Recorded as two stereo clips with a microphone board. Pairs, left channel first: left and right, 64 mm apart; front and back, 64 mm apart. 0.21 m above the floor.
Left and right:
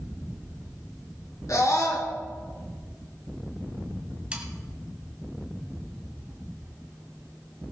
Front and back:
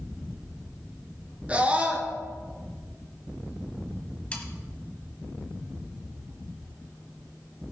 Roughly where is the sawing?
Ahead right.